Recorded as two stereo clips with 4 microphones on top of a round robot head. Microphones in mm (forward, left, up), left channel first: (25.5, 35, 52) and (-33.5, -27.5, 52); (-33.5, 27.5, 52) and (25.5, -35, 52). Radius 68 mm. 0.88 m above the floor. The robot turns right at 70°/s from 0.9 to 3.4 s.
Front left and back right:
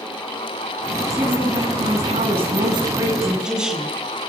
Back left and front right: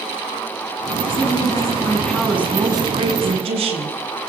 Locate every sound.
1.1 s a woman speaking: 150° left, 7.5 m; by 4.0 s 50° right, 7.5 m